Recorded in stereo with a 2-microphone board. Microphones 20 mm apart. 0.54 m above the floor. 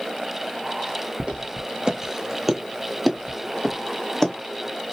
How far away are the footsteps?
About 0.7 m.